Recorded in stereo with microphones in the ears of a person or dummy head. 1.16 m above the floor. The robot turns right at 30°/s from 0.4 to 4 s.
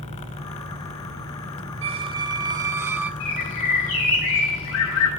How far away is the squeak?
About 0.6 m.